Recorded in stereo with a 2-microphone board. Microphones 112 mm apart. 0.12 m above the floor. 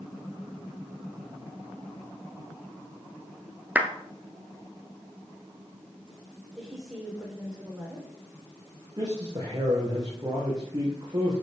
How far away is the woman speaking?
About 7.5 m.